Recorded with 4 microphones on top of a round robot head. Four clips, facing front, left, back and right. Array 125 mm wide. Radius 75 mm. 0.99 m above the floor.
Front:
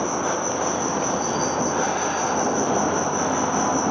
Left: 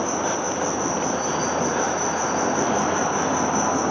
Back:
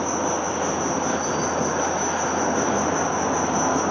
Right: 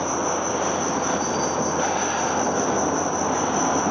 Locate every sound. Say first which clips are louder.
0.0 s an insect: even, even; 110° left, 1.5 m